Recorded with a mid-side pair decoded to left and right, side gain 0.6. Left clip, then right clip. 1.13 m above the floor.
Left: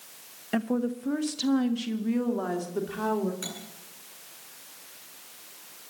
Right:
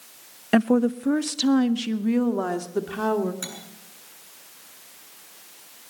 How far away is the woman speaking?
About 0.6 m.